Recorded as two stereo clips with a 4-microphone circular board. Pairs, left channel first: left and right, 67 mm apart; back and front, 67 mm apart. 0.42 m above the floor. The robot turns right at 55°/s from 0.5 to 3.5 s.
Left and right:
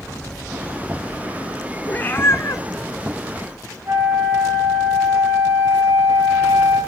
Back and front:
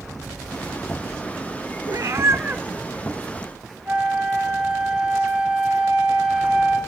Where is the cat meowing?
20° left, 0.8 m; by 2.6 s 65° left, 0.8 m.